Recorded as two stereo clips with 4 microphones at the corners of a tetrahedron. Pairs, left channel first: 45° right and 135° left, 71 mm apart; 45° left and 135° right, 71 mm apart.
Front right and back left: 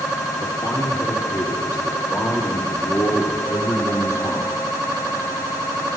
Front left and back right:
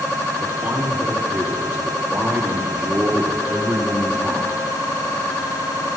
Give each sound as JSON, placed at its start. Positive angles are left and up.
{"t": 0.4, "sound": "a man speaking", "azimuth_deg": -60, "distance_m": 6.0}